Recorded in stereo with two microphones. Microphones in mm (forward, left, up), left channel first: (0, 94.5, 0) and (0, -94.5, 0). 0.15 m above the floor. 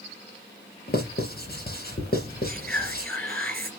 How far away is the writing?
About 2.5 m.